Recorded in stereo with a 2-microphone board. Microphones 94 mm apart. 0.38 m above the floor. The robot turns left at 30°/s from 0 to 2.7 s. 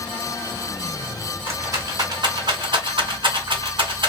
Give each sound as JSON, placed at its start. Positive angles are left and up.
{"t": 1.5, "sound": "a rattle", "side_deg": -25, "distance_m": 1.5}